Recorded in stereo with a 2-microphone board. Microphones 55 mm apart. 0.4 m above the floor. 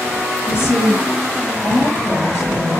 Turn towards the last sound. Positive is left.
turn(degrees=75)  # may be behind; listen again after turning